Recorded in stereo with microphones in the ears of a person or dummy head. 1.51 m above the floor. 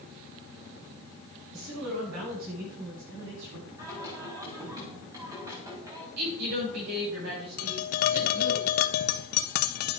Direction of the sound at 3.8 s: 25° right (ahead or behind).